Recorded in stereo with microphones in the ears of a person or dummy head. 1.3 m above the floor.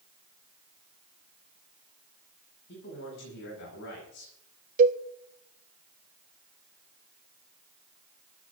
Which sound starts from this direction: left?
A man speaking, at 2.7 s.